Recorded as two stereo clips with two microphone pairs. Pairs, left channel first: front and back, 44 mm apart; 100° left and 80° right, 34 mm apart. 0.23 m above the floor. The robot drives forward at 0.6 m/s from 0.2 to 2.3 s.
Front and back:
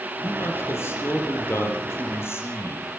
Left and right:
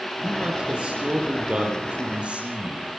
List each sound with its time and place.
0.2 s a man speaking: 20° right, 8.5 m